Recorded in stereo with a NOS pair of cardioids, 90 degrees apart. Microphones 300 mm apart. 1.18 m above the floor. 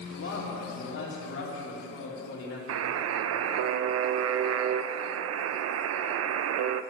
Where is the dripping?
I don't hear dripping.